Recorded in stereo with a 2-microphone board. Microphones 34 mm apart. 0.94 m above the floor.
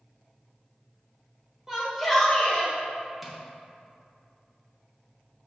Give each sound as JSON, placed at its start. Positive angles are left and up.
{"t": 1.7, "sound": "a shout", "side_deg": -15, "distance_m": 1.2}
{"t": 3.2, "sound": "tapping", "side_deg": -10, "distance_m": 0.7}